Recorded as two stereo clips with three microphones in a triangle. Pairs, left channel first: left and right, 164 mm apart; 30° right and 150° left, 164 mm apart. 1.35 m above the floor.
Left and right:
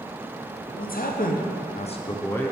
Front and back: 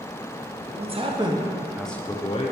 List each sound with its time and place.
0.8 s a man speaking: 105° left, 1.1 m; by 2.5 s 5° left, 0.7 m